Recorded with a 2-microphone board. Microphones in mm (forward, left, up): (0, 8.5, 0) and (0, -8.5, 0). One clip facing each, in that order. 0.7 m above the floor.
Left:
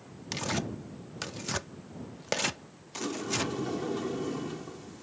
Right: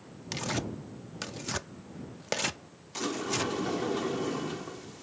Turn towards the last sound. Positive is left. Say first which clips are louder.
# right 1 dB
turn(degrees=-20)  # may be behind; listen again after turning